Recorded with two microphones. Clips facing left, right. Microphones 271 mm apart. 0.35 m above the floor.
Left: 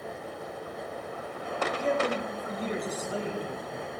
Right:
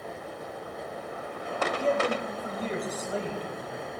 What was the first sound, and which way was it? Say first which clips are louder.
A man speaking: right 1 dB; 40° right (ahead or behind).